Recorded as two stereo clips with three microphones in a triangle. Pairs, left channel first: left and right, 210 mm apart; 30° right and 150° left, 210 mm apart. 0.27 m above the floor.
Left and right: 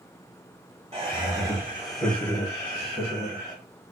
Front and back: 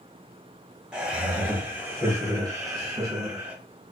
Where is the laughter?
125° right, 1.3 m; by 3.5 s 85° left, 1.5 m.